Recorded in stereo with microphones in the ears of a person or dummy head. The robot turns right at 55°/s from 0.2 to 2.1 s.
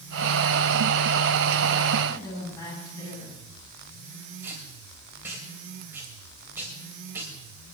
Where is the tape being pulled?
10° right (ahead or behind), 4 m.